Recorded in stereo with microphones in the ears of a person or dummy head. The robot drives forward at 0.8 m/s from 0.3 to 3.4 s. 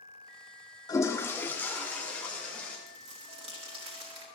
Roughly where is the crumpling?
Right.